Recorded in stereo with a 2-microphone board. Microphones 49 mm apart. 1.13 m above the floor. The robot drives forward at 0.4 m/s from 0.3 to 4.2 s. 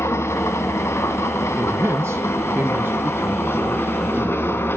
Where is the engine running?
70° left (ahead or behind), 2.5 m; by 4.8 s 55° left (ahead or behind), 3 m.